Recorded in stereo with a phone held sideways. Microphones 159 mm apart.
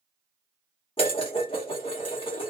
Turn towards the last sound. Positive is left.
turn(degrees=35)  # may be behind; listen again after turning